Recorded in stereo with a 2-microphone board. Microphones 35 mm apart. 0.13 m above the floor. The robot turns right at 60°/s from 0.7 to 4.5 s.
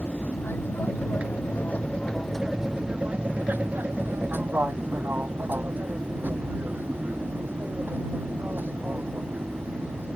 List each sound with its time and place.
0.0 s an aircraft: 70° left (ahead or behind); by 10.2 s 65° right (ahead or behind)